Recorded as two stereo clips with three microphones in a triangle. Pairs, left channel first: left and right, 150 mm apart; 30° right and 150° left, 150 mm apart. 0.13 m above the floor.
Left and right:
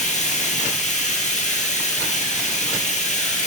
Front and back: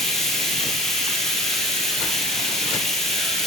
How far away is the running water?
About 2 m.